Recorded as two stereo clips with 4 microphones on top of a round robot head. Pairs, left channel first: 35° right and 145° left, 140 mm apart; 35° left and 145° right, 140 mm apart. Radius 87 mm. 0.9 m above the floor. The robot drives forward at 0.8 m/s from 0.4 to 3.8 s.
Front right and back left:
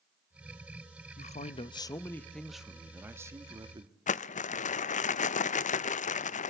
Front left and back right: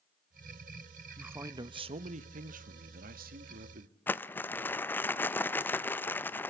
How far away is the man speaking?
About 1.1 m.